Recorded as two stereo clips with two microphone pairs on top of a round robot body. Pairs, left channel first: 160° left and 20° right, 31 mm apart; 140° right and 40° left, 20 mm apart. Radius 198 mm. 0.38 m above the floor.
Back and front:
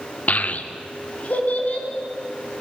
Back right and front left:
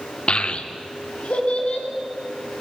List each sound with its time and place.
0.3 s a child speaking: 170° right, 0.8 m; by 1.9 s 160° right, 3 m